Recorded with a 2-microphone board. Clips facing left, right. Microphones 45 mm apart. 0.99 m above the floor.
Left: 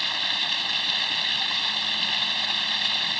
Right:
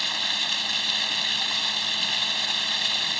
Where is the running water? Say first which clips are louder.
Left 1 dB; 5° left (ahead or behind).